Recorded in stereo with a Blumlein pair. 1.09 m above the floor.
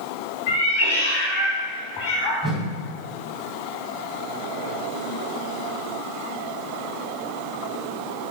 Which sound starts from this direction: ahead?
A whoosh, at 2.4 s.